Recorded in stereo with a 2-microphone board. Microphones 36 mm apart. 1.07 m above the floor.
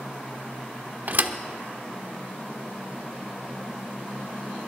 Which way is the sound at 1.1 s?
50° right (ahead or behind).